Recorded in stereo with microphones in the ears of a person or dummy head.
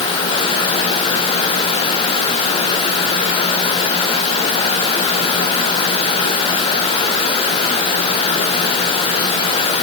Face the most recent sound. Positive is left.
No sound to turn to.